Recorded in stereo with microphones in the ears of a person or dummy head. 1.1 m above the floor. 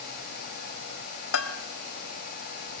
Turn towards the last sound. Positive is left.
turn(degrees=75)  # may be behind; listen again after turning